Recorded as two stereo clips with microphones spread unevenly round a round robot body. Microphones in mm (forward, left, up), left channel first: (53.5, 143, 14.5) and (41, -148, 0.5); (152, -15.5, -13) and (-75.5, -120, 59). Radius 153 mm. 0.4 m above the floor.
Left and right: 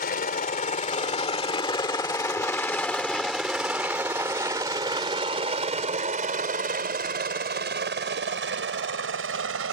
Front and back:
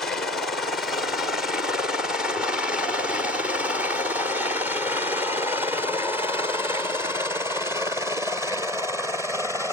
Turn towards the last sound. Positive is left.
turn(degrees=-65)